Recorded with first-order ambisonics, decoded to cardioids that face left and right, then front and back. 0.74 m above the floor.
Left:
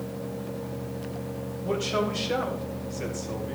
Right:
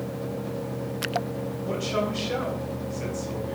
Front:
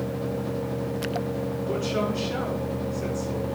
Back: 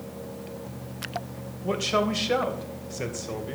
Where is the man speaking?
170° left, 3 m.